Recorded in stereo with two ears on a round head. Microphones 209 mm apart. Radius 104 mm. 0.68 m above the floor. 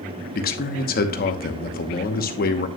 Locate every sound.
0.3 s a man speaking: 40° left (ahead or behind), 0.9 m